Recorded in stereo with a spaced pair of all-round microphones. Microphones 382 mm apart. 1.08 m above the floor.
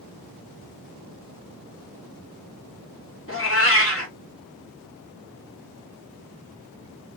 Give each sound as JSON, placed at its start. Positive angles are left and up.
{"t": 3.3, "sound": "a cat meowing", "side_deg": 35, "distance_m": 1.0}